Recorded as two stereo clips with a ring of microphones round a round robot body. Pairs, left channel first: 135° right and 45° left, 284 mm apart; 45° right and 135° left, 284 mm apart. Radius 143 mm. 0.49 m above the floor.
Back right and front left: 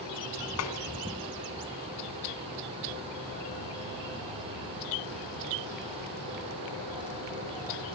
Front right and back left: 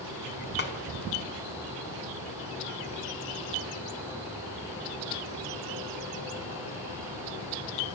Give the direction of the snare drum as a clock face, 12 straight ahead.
3 o'clock.